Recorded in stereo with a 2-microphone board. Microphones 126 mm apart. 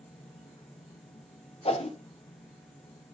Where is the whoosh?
55° left (ahead or behind), 0.9 m.